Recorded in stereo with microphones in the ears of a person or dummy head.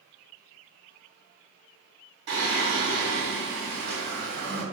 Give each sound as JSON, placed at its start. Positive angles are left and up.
{"t": 2.3, "sound": "singing", "side_deg": -60, "distance_m": 1.7}